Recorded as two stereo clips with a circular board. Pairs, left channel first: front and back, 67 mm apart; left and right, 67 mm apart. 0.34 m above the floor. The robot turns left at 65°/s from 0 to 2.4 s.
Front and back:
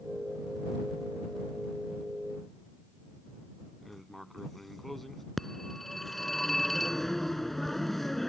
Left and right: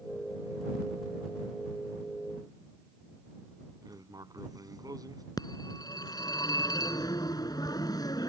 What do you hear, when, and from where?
3.8 s writing: 85° right
5.4 s a phone ringing: 85° left